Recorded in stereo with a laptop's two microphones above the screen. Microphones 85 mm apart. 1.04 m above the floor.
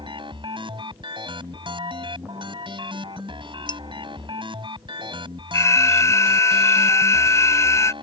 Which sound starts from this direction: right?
A machine running, at 0.0 s.